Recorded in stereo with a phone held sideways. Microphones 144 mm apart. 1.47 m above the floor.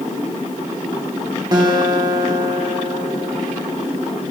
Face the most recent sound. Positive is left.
turn(degrees=-30)  # may be behind; listen again after turning